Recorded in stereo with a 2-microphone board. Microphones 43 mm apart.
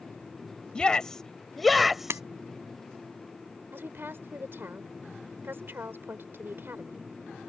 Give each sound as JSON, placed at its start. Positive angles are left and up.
{"t": 0.8, "sound": "a shout", "side_deg": 20}
{"t": 2.1, "sound": "breaking glass", "side_deg": -75}
{"t": 3.7, "sound": "a woman speaking", "side_deg": -55}